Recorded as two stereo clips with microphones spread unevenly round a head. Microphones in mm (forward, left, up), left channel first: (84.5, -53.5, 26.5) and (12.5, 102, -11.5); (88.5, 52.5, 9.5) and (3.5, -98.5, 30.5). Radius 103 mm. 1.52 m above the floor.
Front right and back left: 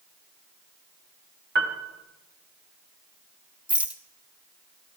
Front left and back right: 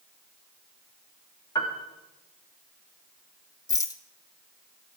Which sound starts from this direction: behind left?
A piano, at 1.6 s.